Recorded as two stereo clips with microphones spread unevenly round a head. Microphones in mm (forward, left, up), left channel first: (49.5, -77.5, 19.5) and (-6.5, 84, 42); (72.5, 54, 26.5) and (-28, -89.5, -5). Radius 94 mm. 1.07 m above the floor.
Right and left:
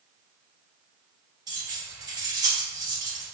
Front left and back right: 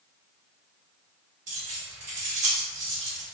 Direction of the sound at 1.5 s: Straight behind.